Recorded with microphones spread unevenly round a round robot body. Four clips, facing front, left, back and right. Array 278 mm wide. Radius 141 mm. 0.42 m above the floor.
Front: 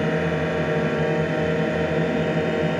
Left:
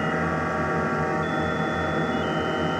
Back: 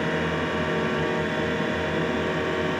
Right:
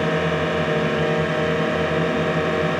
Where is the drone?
45° right.